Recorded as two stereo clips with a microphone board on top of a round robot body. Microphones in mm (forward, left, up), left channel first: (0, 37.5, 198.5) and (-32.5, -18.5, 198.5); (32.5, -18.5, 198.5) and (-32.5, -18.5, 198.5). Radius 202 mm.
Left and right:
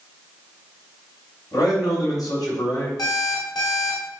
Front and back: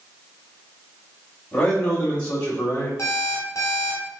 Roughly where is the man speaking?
Left.